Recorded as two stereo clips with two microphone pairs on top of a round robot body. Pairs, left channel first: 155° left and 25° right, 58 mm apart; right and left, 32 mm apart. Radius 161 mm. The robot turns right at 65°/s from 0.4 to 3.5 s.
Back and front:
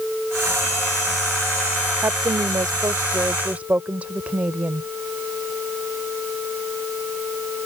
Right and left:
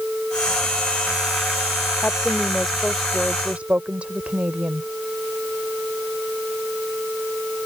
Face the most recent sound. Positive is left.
turn(degrees=40)